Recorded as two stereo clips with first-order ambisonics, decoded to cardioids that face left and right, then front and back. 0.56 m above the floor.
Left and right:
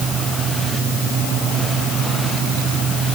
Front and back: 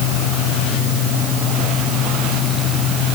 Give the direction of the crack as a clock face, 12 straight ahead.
I don't hear a crack.